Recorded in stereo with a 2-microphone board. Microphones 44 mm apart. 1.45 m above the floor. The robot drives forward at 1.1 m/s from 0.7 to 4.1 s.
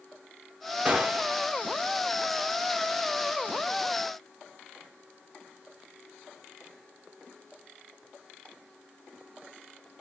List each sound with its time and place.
0.8 s a gunshot: 25° right (ahead or behind), 1.6 m; by 1.4 s 20° right (ahead or behind), 2 m